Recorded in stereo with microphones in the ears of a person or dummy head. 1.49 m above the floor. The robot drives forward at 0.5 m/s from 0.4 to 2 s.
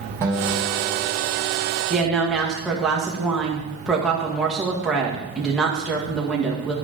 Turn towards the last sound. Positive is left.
turn(degrees=0)  # may be behind; listen again after turning